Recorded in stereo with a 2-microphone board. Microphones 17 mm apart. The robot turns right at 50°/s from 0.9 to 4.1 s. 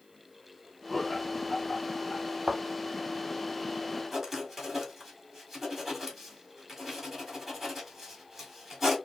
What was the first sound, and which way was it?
Laughter, 10° right (ahead or behind).